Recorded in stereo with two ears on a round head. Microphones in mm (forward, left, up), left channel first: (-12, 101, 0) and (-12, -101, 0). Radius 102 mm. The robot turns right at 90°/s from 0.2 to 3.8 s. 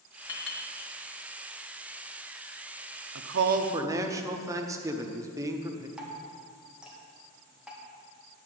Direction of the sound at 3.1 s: 70° right.